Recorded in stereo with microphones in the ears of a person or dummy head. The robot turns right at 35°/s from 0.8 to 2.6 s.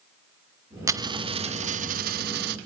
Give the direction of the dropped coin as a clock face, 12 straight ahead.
5 o'clock.